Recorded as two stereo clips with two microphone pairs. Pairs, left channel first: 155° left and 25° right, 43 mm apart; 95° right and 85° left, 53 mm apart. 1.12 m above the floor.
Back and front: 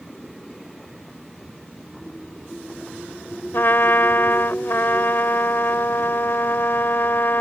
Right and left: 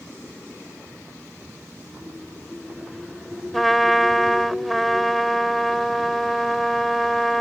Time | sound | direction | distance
3.5 | a trumpet | 175° left | ?